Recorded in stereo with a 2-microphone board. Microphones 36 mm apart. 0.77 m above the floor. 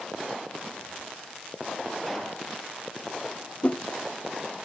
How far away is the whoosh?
About 0.7 m.